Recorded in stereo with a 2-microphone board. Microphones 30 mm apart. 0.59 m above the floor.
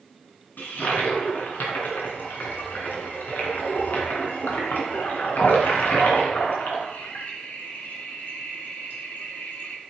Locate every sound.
0.6 s a toilet flushing: 85° left, 2.5 m